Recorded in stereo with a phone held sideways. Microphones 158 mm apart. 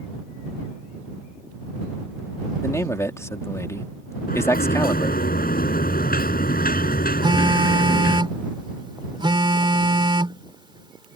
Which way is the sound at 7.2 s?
30° right (ahead or behind).